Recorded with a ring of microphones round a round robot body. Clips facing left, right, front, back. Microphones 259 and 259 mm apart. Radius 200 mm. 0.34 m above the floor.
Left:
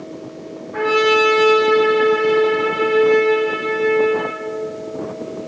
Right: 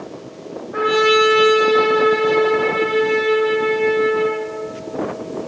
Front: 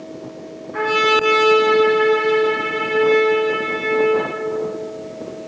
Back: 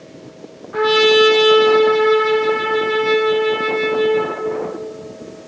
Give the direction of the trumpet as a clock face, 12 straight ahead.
6 o'clock.